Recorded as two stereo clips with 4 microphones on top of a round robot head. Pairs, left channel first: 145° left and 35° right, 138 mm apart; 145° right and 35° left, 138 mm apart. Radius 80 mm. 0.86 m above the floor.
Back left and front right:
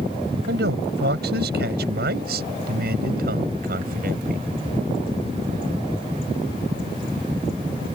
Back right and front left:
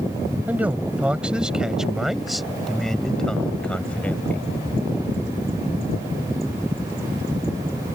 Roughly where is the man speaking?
Ahead right.